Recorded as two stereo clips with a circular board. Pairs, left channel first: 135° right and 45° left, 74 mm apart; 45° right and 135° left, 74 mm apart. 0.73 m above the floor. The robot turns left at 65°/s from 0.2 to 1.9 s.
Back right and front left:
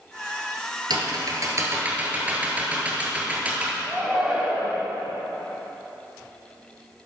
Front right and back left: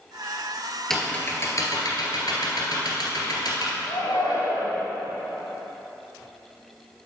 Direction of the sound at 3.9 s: 40° right.